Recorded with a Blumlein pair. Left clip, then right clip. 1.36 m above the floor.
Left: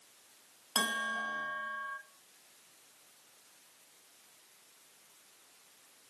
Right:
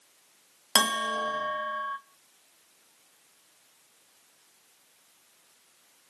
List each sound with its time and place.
0.8 s a bell: 45° right, 0.7 m